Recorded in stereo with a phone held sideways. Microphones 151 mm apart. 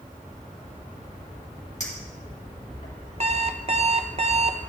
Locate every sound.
1.8 s a clink: 50° left (ahead or behind), 2.5 m
3.2 s an alarm clock: 45° right (ahead or behind), 0.5 m